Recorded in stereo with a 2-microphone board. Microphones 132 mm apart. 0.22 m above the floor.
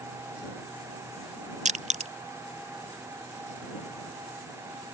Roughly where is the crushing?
Right.